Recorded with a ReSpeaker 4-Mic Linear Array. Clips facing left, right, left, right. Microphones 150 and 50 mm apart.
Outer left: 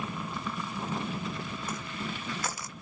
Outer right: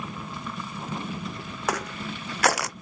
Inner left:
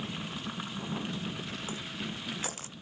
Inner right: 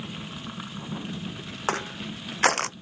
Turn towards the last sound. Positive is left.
turn(degrees=-75)  # may be behind; listen again after turning